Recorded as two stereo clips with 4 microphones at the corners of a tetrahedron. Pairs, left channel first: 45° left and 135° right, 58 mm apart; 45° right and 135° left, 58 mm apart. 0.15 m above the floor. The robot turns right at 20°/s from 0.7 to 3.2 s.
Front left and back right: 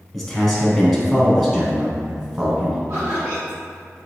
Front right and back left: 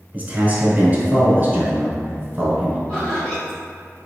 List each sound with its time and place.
0.1 s a man speaking: 130° left, 1.1 m; by 2.8 s 170° left, 1.1 m
2.9 s laughter: 110° right, 1.6 m; by 3.6 s 100° right, 1.6 m